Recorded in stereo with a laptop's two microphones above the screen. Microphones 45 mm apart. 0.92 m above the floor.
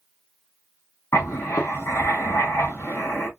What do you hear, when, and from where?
1.1 s writing: 75° left (ahead or behind), 1.4 m